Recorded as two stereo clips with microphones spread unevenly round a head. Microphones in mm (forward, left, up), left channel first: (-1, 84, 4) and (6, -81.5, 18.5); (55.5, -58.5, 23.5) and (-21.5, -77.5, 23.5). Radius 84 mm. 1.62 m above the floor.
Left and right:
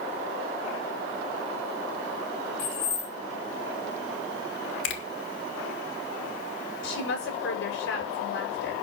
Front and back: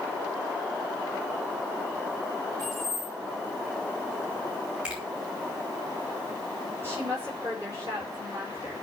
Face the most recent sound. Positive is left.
turn(degrees=120)